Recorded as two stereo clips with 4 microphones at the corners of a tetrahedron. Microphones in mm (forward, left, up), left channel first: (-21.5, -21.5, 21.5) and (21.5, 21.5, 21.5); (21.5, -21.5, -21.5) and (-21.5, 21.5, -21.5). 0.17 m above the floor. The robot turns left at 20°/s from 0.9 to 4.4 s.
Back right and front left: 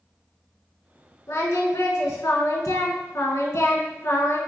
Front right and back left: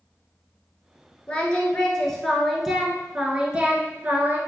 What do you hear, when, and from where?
1.3 s singing: 110° right, 0.6 m; by 4.4 s 175° right, 0.6 m